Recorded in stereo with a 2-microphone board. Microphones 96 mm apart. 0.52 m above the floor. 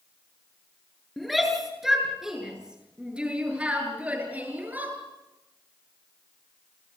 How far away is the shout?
About 8 m.